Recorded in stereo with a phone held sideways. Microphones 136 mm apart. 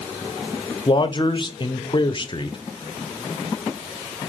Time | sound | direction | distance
0.9 | a man speaking | 40° left (ahead or behind) | 0.5 m